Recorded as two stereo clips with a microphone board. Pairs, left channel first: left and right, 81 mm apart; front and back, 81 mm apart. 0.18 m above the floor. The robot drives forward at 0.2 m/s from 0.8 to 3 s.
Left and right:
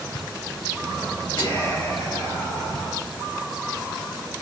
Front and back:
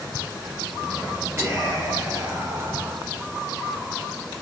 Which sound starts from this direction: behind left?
Whispering, at 1.4 s.